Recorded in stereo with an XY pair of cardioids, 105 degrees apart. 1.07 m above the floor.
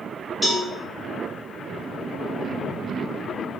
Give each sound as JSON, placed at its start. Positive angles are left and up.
{"t": 0.4, "sound": "a cowbell", "azimuth_deg": 10, "distance_m": 1.1}